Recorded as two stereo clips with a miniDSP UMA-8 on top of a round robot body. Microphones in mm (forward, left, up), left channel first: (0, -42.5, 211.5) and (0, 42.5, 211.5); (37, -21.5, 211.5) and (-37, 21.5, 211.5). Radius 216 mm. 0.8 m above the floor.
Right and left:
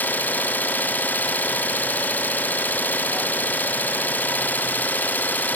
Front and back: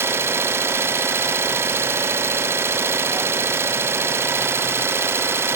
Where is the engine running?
155° right, 1.0 m.